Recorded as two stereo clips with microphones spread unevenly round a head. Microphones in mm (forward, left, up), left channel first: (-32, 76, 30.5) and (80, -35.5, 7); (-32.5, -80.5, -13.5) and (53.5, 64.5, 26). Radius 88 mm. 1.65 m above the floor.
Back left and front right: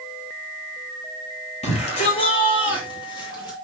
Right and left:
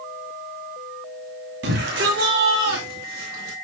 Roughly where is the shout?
Left.